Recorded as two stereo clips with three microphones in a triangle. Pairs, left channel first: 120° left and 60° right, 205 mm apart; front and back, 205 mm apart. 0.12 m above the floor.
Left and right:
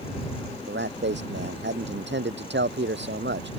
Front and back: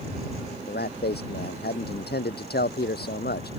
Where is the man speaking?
35° right.